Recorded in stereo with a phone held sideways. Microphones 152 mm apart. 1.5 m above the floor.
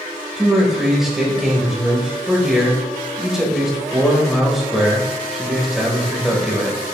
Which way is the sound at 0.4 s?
5° right (ahead or behind).